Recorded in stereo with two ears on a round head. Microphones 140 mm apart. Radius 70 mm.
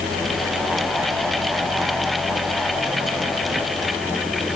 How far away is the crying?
I don't hear crying.